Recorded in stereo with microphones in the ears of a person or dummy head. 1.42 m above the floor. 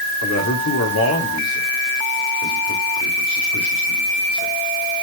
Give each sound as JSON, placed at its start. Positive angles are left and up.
{"t": 0.2, "sound": "a man speaking", "side_deg": 85, "distance_m": 3.0}